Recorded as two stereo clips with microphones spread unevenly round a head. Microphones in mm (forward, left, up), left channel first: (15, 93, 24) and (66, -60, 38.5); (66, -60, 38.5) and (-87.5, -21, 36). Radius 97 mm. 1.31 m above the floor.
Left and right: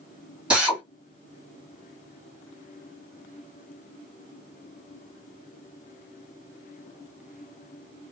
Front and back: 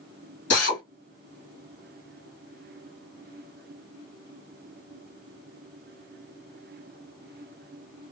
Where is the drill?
10° left, 1.4 m.